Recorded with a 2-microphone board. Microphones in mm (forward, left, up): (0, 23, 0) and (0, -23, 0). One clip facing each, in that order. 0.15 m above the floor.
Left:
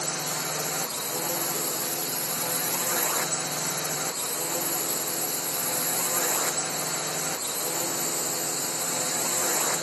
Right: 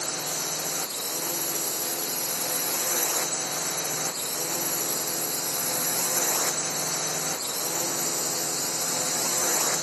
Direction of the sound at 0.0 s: 20° left (ahead or behind).